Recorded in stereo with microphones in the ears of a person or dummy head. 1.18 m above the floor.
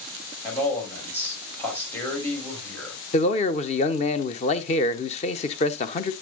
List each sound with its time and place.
0.4 s a man speaking: 15° left (ahead or behind), 5 m
3.1 s a man speaking: 30° left (ahead or behind), 0.9 m